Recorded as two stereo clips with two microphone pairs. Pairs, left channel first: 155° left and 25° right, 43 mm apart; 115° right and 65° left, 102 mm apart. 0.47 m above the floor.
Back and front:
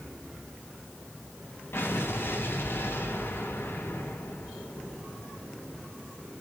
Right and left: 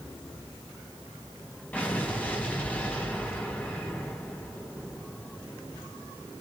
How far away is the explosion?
About 3.5 m.